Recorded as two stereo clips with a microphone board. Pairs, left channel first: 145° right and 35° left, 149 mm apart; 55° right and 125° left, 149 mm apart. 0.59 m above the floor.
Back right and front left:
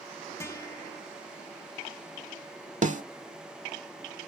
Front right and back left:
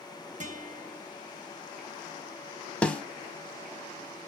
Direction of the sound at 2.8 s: 25° left.